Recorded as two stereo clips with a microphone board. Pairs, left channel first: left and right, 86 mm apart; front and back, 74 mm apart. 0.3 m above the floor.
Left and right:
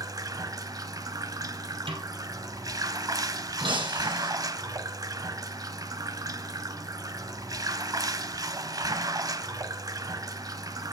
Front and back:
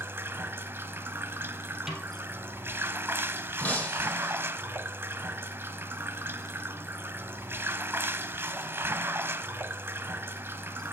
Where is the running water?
125° right, 0.8 m.